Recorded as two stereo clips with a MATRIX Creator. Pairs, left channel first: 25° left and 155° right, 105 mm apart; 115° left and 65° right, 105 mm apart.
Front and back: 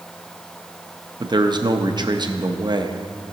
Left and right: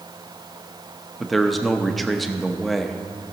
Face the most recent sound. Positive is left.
turn(degrees=-160)